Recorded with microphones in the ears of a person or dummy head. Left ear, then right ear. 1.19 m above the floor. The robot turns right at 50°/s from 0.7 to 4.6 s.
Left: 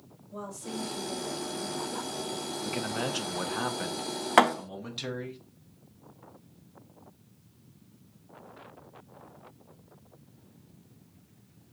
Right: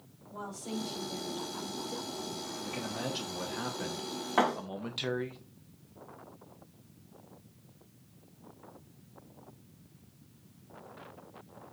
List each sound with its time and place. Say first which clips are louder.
0.3 s a woman speaking: left 1 dB; 110° left, 3.5 m; by 2.5 s 160° right, 3.5 m
2.6 s a man speaking: left 5 dB; 95° left, 0.6 m; by 5.4 s 170° right, 0.6 m
4.4 s a thud: left 7 dB; 45° left (ahead or behind), 0.6 m